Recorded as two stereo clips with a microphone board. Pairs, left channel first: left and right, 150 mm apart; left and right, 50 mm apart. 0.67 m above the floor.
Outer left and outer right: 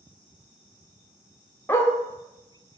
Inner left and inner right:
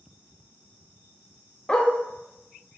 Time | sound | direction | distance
1.7 | a dog barking | 15° left (ahead or behind) | 0.6 m